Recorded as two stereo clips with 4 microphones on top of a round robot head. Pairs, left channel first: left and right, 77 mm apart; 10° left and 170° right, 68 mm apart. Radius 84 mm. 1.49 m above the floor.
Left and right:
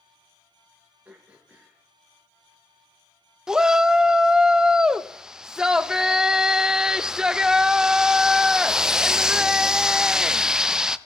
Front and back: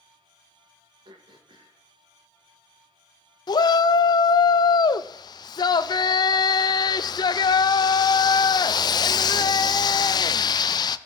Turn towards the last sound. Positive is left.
turn(degrees=-10)